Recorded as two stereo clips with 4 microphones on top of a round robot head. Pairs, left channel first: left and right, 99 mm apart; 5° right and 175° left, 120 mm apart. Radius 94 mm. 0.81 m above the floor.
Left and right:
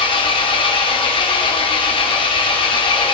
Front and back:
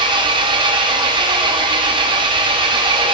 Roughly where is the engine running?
Behind left.